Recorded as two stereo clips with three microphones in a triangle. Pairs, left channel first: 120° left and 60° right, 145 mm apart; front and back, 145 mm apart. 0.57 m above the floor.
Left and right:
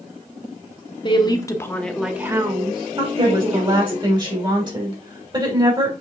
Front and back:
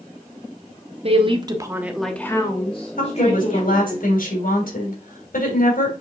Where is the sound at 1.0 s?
160° left, 1.4 m; by 4.0 s 25° right, 2.5 m.